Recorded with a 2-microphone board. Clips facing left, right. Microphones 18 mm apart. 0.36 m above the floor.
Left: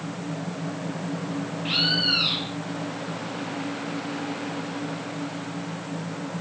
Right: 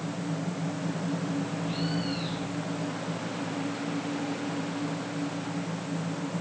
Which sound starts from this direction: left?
A bird, at 1.6 s.